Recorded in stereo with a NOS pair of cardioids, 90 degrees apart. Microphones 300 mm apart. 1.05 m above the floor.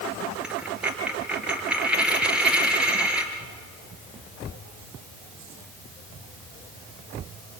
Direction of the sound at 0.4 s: 5° right.